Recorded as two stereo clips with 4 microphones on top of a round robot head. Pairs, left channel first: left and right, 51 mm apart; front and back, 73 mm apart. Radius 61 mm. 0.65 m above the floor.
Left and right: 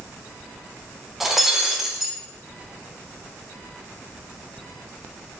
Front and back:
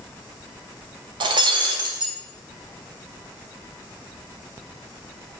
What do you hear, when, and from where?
1.2 s breaking glass: 175° right, 1.0 m